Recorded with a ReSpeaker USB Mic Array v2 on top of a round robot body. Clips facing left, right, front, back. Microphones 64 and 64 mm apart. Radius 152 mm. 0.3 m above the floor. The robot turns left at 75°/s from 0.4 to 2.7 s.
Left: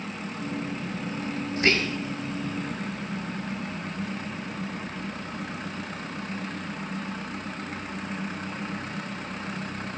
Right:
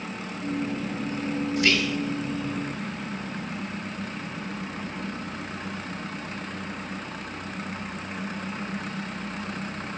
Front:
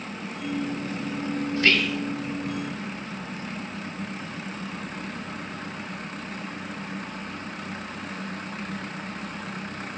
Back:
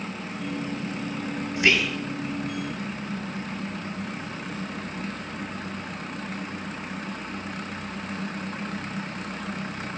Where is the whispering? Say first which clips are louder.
Left 1 dB, back 1 dB; 115° left, 1.1 m; by 2.0 s 85° left, 1.1 m.